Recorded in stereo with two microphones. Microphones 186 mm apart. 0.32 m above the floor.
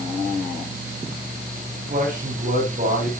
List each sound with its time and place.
1.7 s a man speaking: 45° right (ahead or behind), 7 m